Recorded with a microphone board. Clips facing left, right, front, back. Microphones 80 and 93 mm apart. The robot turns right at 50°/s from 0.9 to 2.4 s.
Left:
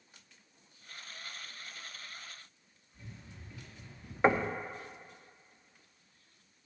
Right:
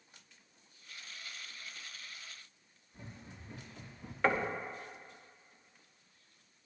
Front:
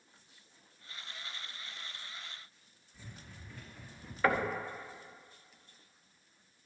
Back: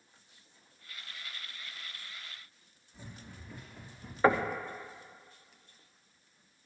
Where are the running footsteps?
115° right, 4 m; by 4.1 s 95° right, 4.5 m.